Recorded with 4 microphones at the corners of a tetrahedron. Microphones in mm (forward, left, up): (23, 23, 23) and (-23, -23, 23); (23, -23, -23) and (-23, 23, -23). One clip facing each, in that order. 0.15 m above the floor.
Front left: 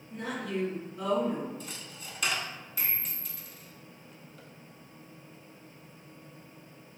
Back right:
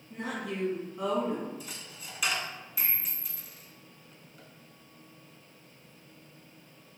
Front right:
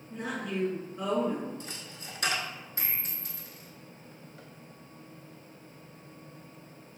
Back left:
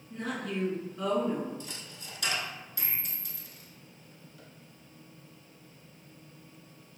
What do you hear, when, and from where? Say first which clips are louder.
0.1 s a woman speaking: front left 1 dB, even; 105° right, 1.3 m
1.6 s a dropped coin: front left 1 dB, front right 1 dB; 50° right, 0.6 m